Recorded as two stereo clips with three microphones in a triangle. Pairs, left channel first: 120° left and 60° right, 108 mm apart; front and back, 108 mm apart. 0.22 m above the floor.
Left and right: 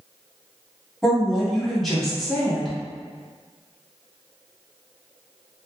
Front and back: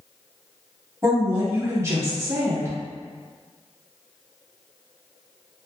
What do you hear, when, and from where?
1.0 s a woman speaking: 155° right, 1.1 m